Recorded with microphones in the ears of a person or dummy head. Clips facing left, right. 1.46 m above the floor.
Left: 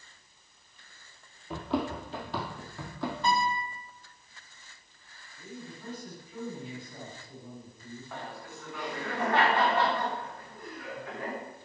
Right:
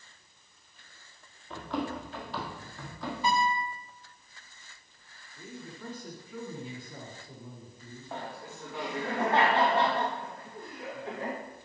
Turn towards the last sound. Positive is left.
turn(degrees=-30)  # may be behind; listen again after turning